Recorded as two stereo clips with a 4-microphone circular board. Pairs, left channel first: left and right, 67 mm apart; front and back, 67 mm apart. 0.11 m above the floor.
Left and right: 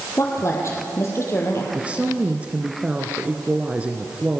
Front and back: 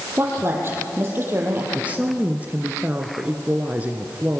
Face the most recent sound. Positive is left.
turn(degrees=-140)